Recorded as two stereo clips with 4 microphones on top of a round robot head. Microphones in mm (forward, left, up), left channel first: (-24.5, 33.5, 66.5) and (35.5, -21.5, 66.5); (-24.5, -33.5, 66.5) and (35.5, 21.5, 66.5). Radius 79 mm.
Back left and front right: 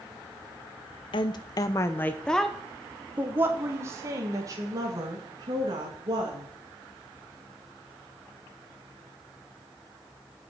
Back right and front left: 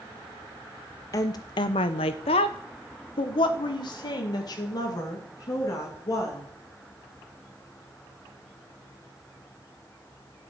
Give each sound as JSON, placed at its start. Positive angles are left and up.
{"t": 1.1, "sound": "a woman speaking", "azimuth_deg": 170, "distance_m": 0.9}